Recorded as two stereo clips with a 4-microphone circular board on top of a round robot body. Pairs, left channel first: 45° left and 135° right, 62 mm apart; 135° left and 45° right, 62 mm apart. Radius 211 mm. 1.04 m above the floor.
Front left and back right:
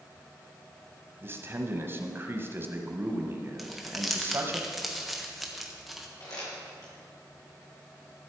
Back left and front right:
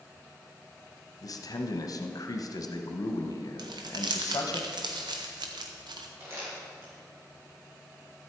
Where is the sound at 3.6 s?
45° right, 0.6 m.